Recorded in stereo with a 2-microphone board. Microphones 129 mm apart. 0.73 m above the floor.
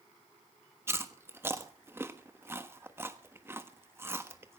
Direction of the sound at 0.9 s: 20° right (ahead or behind).